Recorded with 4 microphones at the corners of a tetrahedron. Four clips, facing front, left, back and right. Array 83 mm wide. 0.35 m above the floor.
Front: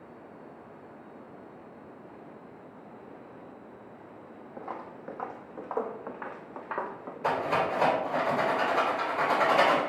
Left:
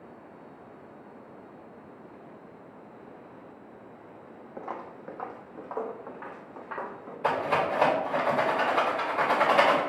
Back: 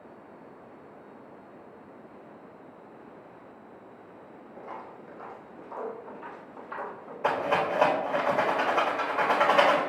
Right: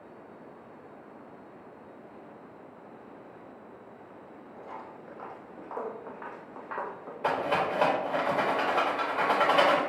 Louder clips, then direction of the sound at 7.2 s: Left 1 dB, back 1 dB; 170° right.